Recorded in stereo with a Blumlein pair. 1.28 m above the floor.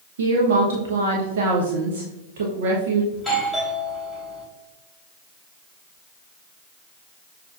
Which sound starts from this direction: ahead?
A doorbell, at 3.1 s.